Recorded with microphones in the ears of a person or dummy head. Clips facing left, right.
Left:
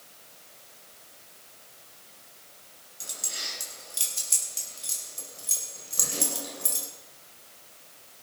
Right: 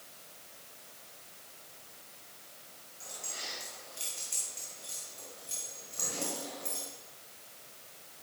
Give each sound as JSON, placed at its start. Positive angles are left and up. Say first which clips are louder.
{"t": 3.0, "sound": "keys jangling", "louder": "left 2 dB", "side_deg": 60, "distance_m": 6.0}